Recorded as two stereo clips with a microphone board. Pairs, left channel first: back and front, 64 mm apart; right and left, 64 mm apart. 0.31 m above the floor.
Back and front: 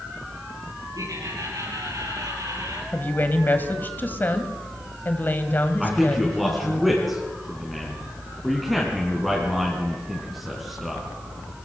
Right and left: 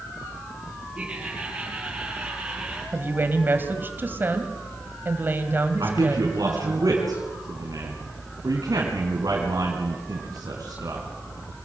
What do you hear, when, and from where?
0.9 s laughter: 15° left, 8 m
2.9 s a woman speaking: 135° left, 1.9 m
5.8 s a man speaking: 90° left, 4 m